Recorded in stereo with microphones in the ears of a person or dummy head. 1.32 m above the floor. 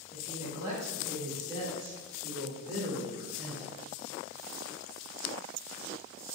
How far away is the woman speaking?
About 4.5 m.